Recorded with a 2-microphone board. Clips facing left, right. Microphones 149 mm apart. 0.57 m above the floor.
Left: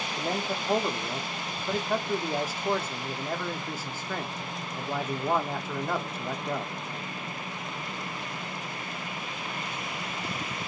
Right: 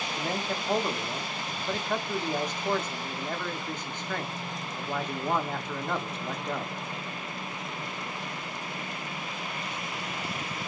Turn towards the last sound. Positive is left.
turn(degrees=5)  # may be behind; listen again after turning